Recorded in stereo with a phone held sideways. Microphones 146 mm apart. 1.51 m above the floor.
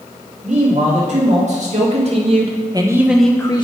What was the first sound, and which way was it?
A man speaking, 60° right (ahead or behind).